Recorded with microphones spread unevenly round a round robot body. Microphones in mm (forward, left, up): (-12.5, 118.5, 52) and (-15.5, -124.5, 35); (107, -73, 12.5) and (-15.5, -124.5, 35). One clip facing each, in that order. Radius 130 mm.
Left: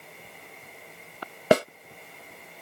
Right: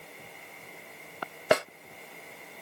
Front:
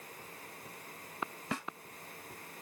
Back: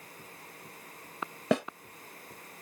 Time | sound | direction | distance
1.5 | a snare drum | 145° left | ?